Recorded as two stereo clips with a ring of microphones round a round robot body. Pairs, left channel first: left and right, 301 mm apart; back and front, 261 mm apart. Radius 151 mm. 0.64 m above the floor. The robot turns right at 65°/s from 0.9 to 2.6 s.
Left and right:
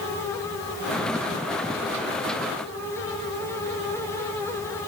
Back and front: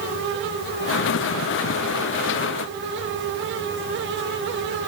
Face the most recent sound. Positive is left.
No sound to turn to.